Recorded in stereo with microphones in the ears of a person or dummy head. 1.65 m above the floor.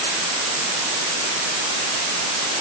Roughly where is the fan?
No fan in this recording.